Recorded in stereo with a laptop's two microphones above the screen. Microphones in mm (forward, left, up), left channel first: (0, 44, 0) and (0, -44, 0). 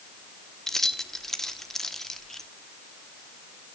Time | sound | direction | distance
0.7 | keys jangling | 5° left (ahead or behind) | 1.1 m